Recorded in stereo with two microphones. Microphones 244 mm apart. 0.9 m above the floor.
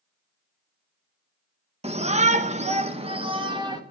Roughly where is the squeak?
No squeak in this recording.